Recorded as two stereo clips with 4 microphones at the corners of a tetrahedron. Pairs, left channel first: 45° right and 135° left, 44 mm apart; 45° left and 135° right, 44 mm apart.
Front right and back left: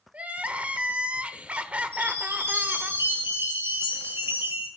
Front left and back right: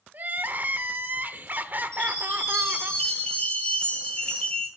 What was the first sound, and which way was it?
Crying, 170° right.